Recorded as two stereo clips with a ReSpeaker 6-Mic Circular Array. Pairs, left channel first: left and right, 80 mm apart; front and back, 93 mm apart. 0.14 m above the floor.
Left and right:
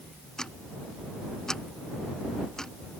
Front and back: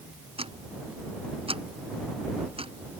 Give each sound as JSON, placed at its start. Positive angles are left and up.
{"t": 0.4, "sound": "ticking", "azimuth_deg": 170}